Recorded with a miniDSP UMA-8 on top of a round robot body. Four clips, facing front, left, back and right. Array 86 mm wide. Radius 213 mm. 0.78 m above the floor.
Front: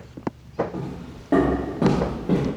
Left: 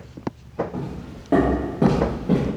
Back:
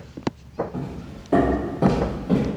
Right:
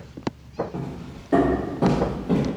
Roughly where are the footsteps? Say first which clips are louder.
Left 1 dB, even; ahead left.